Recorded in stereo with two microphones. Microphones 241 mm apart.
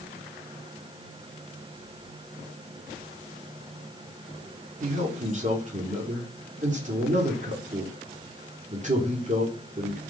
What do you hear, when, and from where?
4.8 s a man speaking: 30° right (ahead or behind), 2 m